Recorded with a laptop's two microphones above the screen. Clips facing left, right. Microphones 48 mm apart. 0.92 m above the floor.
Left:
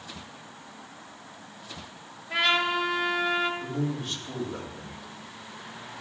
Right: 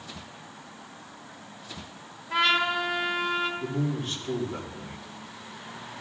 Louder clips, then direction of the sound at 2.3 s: Right 1 dB; 5° left (ahead or behind).